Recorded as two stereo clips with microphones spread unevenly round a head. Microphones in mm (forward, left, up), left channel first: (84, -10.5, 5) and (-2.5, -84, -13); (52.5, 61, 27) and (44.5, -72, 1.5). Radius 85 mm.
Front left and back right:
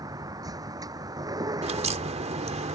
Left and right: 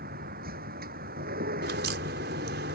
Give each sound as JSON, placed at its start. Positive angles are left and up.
{"t": 0.0, "sound": "a vehicle", "azimuth_deg": -80}
{"t": 1.6, "sound": "a crack", "azimuth_deg": -110}